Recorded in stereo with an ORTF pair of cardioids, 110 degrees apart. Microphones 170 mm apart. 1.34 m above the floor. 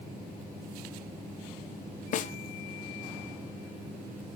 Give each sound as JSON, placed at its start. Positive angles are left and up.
{"t": 2.1, "sound": "a snare drum", "azimuth_deg": 50, "distance_m": 0.6}